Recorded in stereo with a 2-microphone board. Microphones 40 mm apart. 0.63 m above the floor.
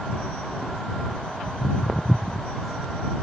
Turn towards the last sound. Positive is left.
turn(degrees=20)  # may be behind; listen again after turning